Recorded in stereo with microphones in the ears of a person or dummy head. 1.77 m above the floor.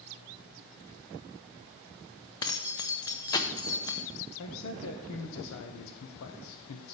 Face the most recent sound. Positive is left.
turn(degrees=80)